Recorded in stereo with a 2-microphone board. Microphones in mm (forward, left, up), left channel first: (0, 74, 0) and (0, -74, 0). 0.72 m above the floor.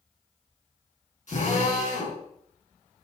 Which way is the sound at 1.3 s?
55° left (ahead or behind).